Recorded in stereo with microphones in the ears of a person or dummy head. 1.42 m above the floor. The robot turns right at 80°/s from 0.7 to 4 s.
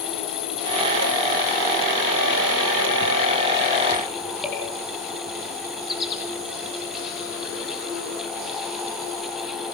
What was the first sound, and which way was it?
An insect, 100° left.